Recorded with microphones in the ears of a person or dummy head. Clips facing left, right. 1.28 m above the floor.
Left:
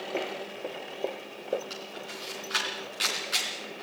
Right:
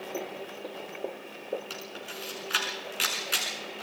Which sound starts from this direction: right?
A camera shutter, at 1.7 s.